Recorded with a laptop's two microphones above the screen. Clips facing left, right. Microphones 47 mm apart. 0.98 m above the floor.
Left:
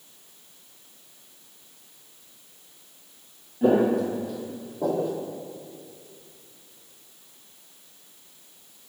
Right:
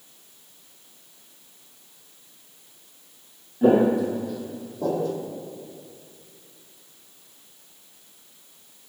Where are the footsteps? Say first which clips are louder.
Right 2 dB; 10° right (ahead or behind), 1.5 m; by 5.2 s 10° left (ahead or behind), 2 m.